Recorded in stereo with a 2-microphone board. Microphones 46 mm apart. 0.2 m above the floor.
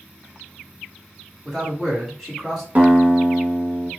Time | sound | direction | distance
1.4 | a man speaking | centre (ahead or behind) | 1.5 m
2.8 | a guitar | 40° right (ahead or behind) | 0.8 m